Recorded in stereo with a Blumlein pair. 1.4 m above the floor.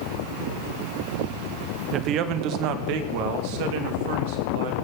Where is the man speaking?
30° right, 1.4 m; by 4.7 s 50° right, 3.5 m.